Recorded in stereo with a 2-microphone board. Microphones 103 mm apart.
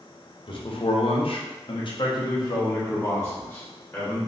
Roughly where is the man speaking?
Left.